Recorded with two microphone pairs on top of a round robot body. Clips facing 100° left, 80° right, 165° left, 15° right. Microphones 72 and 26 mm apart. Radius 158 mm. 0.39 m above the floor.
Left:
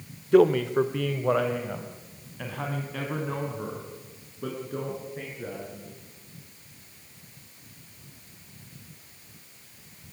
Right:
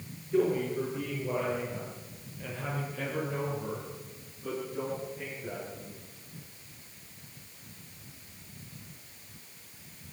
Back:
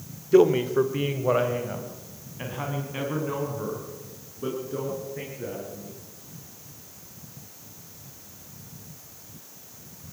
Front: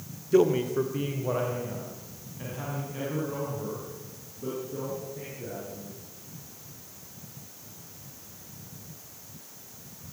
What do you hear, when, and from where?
0.3 s a man speaking: 100° left, 1.5 m; by 6.0 s 130° left, 8.5 m